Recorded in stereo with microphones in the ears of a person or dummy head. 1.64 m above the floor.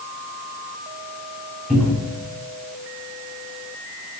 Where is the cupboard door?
5° left (ahead or behind), 1.3 m.